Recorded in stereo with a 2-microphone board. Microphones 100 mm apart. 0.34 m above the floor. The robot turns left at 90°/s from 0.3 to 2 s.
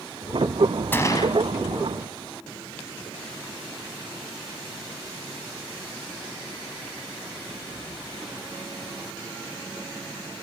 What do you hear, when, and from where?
0.9 s a gunshot: 160° left, 0.9 m; by 1.3 s 120° left, 0.9 m